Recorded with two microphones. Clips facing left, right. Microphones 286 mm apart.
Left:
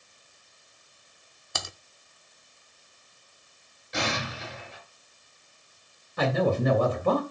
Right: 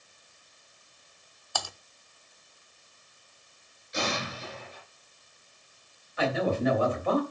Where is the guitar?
I don't hear a guitar.